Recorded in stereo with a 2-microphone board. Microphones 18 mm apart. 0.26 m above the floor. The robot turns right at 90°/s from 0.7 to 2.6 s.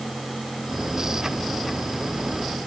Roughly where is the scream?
No scream in this recording.